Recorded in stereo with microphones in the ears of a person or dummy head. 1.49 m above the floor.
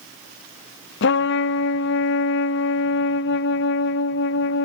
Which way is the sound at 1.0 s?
55° left (ahead or behind).